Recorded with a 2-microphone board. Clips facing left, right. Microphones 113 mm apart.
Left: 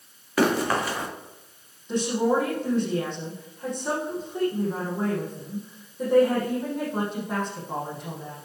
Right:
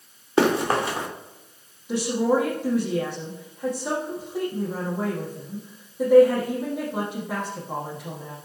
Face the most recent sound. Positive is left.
turn(degrees=-10)  # may be behind; listen again after turning